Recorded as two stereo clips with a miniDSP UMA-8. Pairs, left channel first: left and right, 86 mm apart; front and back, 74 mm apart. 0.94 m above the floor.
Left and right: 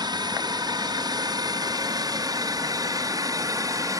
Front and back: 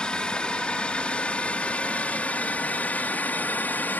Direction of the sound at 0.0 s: 75° right.